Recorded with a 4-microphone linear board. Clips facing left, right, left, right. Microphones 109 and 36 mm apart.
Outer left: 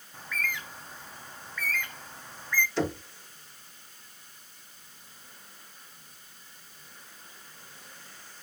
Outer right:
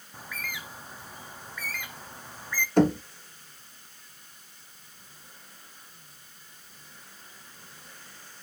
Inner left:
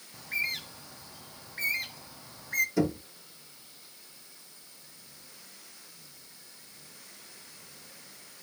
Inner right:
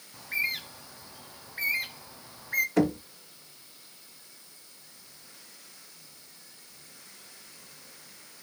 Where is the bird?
10° right (ahead or behind), 0.5 m.